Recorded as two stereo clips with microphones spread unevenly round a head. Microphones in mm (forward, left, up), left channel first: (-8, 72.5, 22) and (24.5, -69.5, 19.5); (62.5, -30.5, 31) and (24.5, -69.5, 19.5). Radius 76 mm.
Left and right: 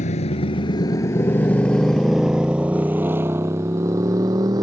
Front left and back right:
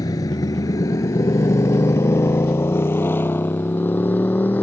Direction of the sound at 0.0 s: 60° left.